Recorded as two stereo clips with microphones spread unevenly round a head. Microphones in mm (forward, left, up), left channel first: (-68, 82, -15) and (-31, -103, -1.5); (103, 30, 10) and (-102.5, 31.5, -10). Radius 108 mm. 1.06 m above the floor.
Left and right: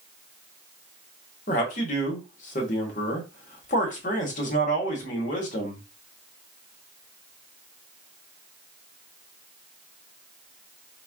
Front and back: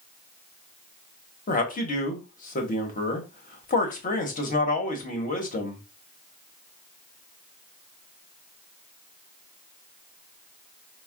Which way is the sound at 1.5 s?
50° left.